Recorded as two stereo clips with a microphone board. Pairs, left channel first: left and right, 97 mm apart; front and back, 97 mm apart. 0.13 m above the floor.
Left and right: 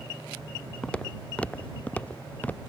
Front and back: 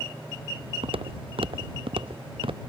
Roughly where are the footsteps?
Behind.